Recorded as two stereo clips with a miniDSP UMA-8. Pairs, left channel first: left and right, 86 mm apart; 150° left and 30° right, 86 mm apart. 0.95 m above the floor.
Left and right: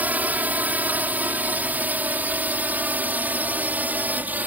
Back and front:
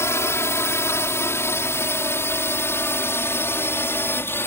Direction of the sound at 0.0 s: 155° right.